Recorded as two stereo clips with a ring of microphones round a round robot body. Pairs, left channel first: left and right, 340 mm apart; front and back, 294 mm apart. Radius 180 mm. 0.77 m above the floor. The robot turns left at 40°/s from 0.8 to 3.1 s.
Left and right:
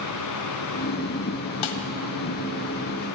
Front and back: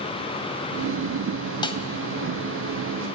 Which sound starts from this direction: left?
A snare drum, at 1.6 s.